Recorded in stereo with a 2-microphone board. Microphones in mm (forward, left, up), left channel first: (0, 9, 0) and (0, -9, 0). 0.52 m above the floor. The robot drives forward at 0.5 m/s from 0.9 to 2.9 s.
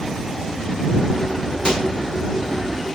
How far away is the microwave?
About 1.3 m.